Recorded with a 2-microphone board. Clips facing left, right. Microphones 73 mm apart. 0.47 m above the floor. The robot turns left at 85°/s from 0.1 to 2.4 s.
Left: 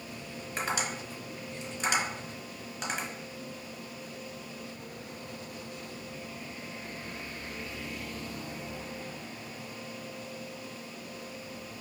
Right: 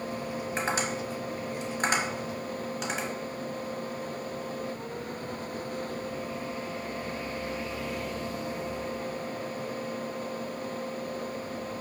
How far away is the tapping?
About 1.1 m.